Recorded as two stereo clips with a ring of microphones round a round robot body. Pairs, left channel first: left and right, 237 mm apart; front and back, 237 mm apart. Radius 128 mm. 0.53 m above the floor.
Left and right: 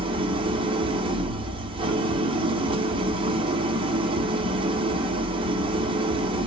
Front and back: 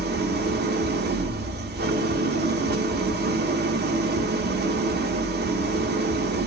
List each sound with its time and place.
0.0 s an engine running: 150° right, 0.8 m